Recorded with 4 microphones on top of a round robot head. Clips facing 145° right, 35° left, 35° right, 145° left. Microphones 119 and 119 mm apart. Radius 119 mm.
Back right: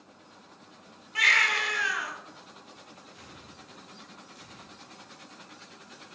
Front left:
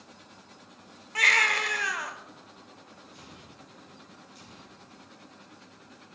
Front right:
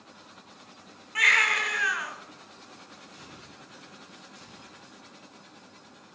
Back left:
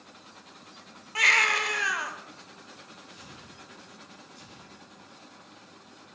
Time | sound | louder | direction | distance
1.1 | a baby crying | front left 1 dB, back left 1 dB | 85° left | 1.5 m
3.1 | tearing paper | even, even | straight ahead | 6.5 m